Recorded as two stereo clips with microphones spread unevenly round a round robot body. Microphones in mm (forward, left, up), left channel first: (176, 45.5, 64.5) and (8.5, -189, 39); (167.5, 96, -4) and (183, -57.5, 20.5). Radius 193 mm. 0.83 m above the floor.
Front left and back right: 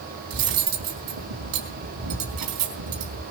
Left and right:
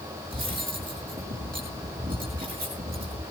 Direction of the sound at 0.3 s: 150° right.